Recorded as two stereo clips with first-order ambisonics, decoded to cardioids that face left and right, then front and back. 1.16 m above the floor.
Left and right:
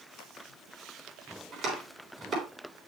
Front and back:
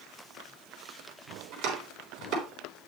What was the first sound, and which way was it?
Chopping, 140° right.